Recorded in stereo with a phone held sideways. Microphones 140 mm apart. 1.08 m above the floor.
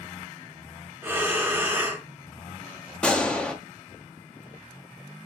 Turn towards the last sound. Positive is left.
turn(degrees=10)  # may be behind; listen again after turning